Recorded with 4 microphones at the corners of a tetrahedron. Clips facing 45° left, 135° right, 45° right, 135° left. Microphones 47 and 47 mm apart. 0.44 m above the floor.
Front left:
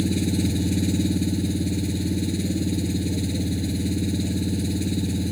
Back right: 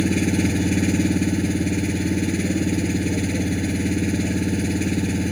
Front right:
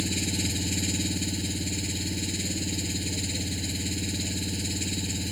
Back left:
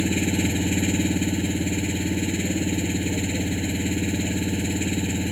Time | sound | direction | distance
0.0 | an engine running | 170° right | ?